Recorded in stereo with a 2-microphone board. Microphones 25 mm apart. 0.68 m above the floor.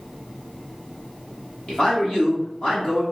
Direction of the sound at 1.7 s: 50° left (ahead or behind).